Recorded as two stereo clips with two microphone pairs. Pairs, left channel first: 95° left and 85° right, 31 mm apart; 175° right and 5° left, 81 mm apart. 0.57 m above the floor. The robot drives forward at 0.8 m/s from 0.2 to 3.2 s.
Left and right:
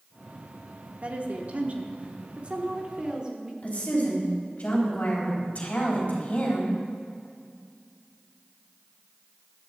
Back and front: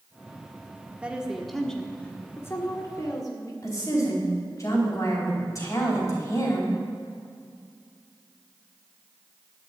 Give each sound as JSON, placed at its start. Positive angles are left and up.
{"t": 1.0, "sound": "a woman speaking", "azimuth_deg": -60, "distance_m": 1.5}
{"t": 3.6, "sound": "a woman speaking", "azimuth_deg": 140, "distance_m": 4.0}